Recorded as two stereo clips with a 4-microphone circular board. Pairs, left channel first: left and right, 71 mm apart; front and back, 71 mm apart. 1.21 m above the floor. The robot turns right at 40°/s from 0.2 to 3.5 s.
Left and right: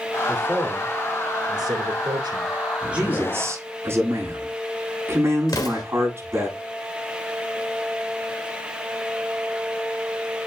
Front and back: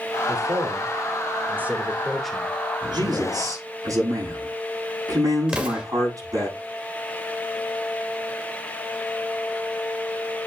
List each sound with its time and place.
0.3 s a man speaking: 165° right, 2.5 m; by 2.6 s 75° right, 2.5 m
2.9 s a man speaking: 165° right, 8 m; by 6.5 s 145° right, 8 m
5.5 s an explosion: 110° left, 2 m